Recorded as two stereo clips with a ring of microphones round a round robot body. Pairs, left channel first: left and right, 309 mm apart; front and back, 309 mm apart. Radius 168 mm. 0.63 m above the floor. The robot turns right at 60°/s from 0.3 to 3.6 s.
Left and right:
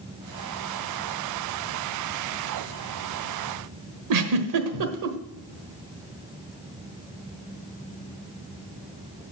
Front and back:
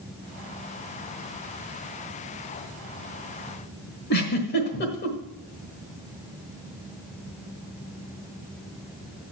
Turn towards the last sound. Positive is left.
turn(degrees=-65)